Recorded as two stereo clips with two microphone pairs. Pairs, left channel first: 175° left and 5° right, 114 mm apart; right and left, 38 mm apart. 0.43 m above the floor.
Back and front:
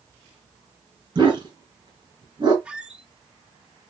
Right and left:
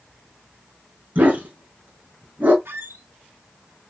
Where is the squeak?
75° left, 0.7 m.